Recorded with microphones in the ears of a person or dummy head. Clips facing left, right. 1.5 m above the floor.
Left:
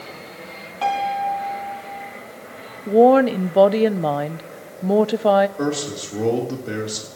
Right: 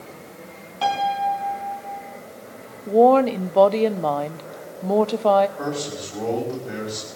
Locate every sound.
0.8 s a piano: centre (ahead or behind), 4 m
2.9 s a woman speaking: 10° left (ahead or behind), 0.5 m
5.6 s a man speaking: 50° left (ahead or behind), 4 m